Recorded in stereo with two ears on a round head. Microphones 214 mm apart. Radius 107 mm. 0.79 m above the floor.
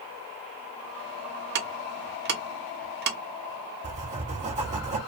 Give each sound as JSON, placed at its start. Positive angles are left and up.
{"t": 1.6, "sound": "ticking", "side_deg": -45, "distance_m": 0.7}
{"t": 3.8, "sound": "writing", "side_deg": -30, "distance_m": 1.1}